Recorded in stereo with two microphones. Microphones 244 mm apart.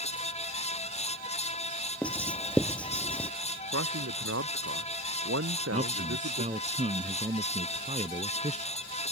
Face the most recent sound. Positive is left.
turn(degrees=-30)  # may be behind; listen again after turning